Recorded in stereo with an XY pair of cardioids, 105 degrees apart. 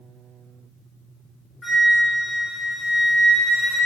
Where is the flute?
25° left, 2.5 m.